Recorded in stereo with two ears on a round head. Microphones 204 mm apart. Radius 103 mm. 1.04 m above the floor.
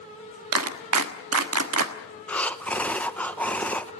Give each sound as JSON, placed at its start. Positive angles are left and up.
{"t": 0.5, "sound": "a clap", "side_deg": -75, "distance_m": 1.4}
{"t": 2.3, "sound": "breathing", "side_deg": 5, "distance_m": 0.8}